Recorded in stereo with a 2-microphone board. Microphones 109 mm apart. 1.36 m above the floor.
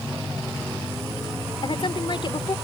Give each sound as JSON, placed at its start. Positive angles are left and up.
{"t": 1.6, "sound": "a woman speaking", "side_deg": 50}